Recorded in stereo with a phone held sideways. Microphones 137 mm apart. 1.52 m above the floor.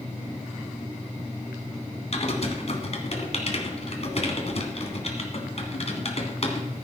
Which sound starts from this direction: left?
Typing on a keyboard, at 2.1 s.